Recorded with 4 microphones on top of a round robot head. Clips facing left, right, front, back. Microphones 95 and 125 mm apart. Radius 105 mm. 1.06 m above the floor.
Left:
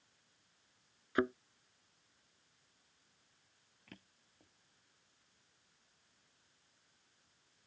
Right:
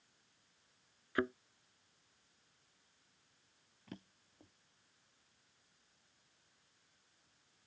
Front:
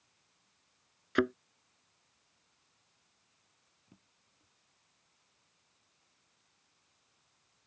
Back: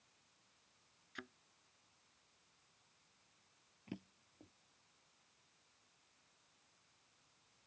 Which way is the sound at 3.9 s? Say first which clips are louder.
Right 6 dB, back 16 dB; 160° right.